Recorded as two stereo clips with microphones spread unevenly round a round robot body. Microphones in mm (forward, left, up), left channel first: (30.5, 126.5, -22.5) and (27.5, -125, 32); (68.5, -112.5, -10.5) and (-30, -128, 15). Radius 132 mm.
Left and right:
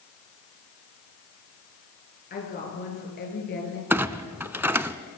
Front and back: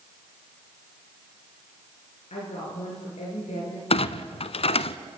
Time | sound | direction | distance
2.3 | a woman speaking | 35° left | 8.5 m
3.9 | a clunk | 15° right | 0.8 m